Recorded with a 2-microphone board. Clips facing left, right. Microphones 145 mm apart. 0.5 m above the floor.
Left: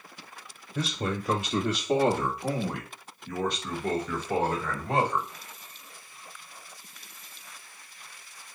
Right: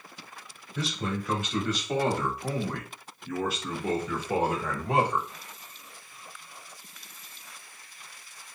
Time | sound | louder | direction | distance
0.8 | a man speaking | left 1 dB | 40° left (ahead or behind) | 1.1 m